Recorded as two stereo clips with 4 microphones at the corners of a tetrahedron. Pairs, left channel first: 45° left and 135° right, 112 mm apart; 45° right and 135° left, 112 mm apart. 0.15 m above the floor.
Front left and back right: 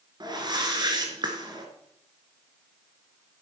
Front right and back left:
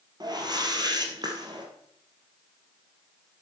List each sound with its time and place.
0.2 s a whoosh: straight behind, 2 m